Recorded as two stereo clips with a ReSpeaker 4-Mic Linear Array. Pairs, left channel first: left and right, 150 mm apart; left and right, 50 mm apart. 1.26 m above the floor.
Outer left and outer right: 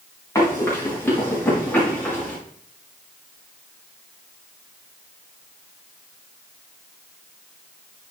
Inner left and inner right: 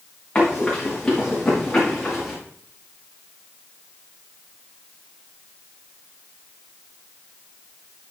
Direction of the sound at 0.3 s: 20° left (ahead or behind).